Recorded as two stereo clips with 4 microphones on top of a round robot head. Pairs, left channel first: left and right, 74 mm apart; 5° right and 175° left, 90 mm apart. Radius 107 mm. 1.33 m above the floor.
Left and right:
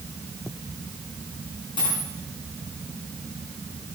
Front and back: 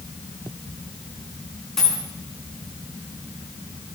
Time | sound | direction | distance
1.8 | a dropped coin | 80° left | 5 m